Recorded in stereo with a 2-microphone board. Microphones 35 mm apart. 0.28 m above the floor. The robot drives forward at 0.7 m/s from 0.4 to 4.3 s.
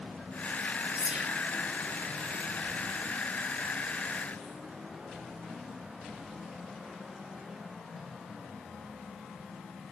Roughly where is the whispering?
Right.